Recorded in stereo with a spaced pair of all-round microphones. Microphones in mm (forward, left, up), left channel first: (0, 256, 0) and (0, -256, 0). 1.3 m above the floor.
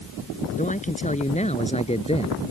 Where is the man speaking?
15° left (ahead or behind); by 2.4 s 10° left (ahead or behind).